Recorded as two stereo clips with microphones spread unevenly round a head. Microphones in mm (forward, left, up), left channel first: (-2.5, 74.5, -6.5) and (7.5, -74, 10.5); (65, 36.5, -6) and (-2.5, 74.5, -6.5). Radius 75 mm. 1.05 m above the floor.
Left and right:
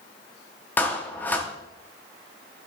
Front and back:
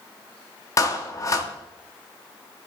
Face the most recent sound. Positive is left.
turn(degrees=15)